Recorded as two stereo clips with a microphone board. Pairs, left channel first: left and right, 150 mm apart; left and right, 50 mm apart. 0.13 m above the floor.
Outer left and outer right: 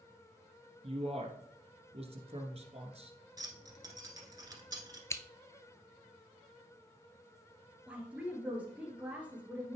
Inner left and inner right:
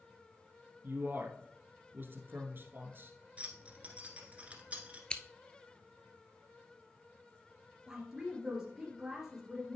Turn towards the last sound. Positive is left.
turn(degrees=-10)  # may be behind; listen again after turning